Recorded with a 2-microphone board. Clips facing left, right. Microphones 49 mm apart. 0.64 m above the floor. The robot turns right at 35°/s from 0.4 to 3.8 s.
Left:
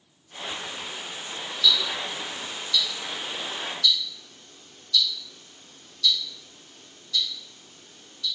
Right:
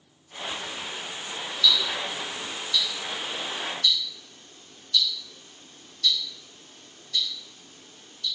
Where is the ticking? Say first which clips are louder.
Even; 20° left (ahead or behind), 1.0 m; by 8.2 s 50° right (ahead or behind), 1.0 m.